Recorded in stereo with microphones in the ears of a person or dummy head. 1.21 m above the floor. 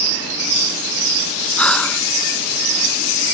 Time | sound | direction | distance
1.6 | breathing | 5° left (ahead or behind) | ?